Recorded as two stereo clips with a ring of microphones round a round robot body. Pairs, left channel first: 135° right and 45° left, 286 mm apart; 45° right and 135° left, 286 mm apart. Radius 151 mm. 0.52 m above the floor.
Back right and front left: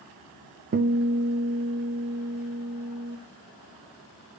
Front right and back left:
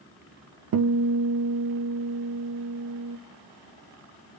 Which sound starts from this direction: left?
A guitar, at 0.7 s.